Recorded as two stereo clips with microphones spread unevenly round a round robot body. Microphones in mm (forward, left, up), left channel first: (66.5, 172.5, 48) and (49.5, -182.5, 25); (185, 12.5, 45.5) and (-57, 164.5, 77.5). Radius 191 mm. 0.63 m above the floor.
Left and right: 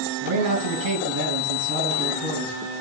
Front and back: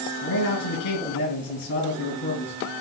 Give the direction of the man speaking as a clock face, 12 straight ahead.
2 o'clock.